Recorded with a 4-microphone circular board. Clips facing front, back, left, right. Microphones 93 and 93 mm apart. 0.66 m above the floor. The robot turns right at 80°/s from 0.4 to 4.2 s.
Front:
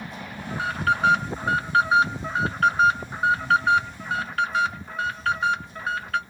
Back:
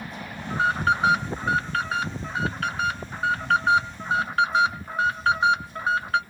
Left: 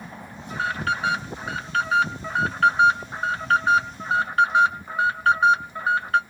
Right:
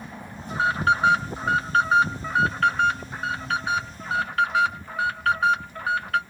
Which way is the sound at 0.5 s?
160° right.